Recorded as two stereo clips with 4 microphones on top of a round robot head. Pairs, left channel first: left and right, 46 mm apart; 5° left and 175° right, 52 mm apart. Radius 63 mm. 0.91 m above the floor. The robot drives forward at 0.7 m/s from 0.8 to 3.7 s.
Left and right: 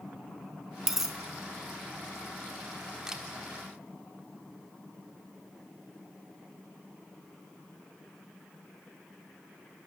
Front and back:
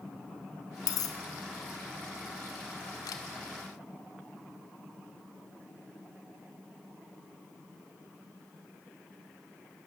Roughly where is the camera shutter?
Ahead.